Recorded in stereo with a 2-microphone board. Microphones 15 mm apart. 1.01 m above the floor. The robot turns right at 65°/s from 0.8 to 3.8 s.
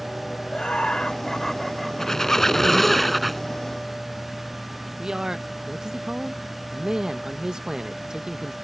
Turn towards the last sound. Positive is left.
turn(degrees=-40)  # may be behind; listen again after turning